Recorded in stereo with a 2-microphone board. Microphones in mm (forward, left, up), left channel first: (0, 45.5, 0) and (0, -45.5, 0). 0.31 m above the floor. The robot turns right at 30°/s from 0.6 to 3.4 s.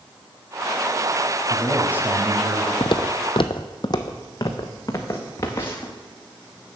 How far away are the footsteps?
About 0.6 m.